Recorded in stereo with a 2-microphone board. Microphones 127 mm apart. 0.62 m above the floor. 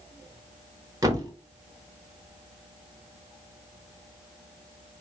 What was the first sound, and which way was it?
A thud, 30° right (ahead or behind).